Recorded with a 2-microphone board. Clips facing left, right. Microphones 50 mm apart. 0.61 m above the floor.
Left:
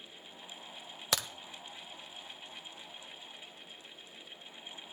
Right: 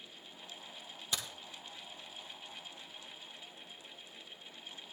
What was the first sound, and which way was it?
A crack, 75° left (ahead or behind).